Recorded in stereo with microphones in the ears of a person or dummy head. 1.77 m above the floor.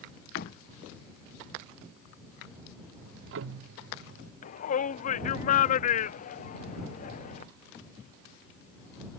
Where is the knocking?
55° left (ahead or behind).